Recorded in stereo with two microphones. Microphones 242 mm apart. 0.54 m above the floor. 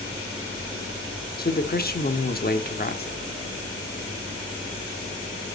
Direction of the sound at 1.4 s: 40° left (ahead or behind).